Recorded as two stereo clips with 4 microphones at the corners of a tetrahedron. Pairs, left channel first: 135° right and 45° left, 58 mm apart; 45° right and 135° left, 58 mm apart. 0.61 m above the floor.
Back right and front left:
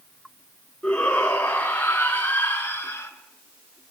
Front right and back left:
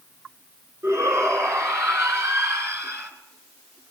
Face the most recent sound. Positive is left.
turn(degrees=175)